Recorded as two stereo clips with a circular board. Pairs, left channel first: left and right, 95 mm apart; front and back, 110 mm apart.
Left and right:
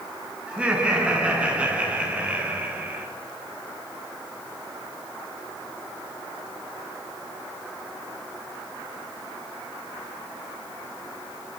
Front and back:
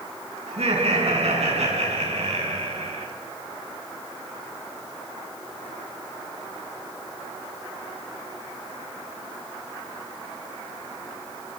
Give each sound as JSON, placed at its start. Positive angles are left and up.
{"t": 0.5, "sound": "laughter", "azimuth_deg": -170, "distance_m": 7.0}